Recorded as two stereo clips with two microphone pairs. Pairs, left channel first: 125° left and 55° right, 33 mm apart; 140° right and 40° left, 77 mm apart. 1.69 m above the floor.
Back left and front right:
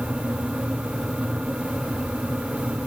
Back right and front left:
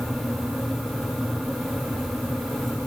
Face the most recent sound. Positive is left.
No sound to turn to.